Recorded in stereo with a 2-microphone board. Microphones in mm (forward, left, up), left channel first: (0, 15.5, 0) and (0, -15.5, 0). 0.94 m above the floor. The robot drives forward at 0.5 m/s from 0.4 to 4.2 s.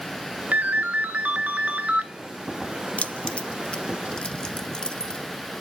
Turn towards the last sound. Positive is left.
turn(degrees=30)  # may be behind; listen again after turning